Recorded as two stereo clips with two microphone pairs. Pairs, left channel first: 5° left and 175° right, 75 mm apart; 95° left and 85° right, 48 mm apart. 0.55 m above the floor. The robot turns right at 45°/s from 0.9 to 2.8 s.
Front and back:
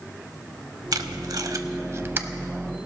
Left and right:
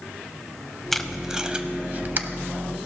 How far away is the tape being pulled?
About 0.6 m.